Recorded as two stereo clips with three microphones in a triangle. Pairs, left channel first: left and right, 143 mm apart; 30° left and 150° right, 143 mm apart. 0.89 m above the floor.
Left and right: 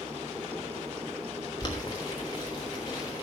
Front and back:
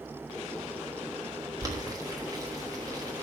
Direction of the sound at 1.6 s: 150° left.